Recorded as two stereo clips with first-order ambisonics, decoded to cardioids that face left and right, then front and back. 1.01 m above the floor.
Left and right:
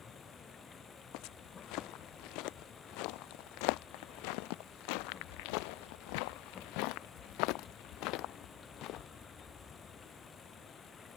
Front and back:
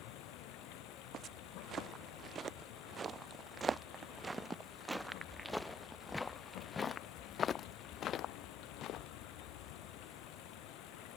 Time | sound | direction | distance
0.0 | running water | 20° left | ?
1.1 | footsteps | 120° left | ?